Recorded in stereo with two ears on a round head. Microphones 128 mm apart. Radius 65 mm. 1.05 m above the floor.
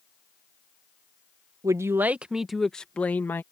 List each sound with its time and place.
1.6 s a man speaking: 25° right (ahead or behind); by 3.4 s 15° left (ahead or behind)